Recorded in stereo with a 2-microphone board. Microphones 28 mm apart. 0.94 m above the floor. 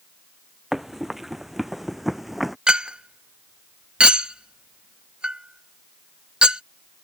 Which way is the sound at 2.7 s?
35° right (ahead or behind).